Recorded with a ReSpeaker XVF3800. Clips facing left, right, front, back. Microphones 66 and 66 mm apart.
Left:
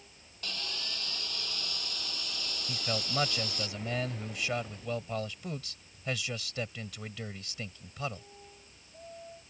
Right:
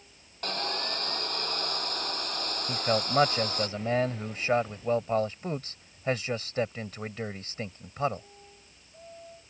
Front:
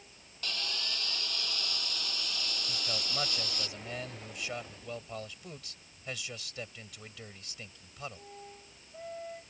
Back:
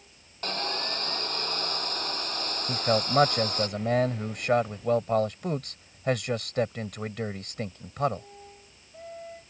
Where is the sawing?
135° right.